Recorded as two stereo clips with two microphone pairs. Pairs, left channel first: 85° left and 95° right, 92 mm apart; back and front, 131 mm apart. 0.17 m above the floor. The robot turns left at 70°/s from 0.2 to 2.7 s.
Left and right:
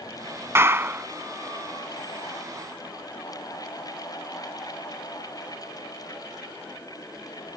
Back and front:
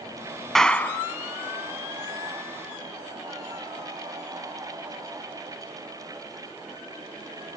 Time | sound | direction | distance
0.6 | a clap | 100° right | ?